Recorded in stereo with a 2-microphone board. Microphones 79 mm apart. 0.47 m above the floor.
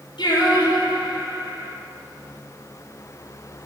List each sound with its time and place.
0.2 s singing: 85° left, 7.5 m